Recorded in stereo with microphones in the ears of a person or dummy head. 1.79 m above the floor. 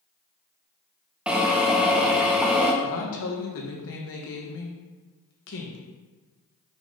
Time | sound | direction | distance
1.3 | a drill | 5° right (ahead or behind) | 0.9 m
2.8 | a woman speaking | 65° left (ahead or behind) | 1.6 m